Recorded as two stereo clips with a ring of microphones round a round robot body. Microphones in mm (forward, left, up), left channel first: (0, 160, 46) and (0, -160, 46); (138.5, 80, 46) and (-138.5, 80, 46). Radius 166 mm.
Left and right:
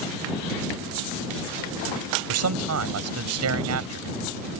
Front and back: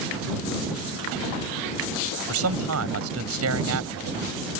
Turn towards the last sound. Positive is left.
turn(degrees=-135)